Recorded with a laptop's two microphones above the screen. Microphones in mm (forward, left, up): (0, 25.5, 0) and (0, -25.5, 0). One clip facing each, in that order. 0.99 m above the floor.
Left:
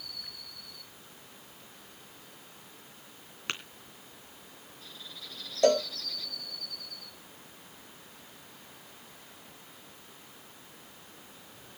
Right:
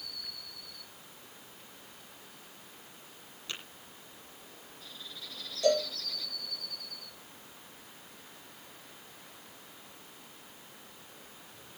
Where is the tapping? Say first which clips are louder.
Left 5 dB; 60° left (ahead or behind), 2.5 m.